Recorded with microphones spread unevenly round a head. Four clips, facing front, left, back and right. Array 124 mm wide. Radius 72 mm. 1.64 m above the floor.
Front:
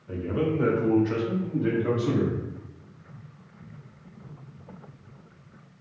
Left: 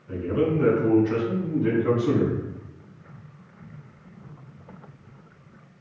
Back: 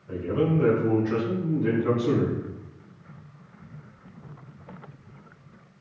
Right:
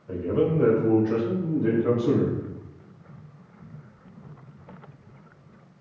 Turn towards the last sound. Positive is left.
turn(degrees=-60)